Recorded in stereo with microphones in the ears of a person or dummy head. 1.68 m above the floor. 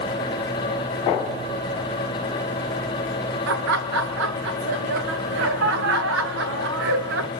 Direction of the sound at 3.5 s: 65° right (ahead or behind).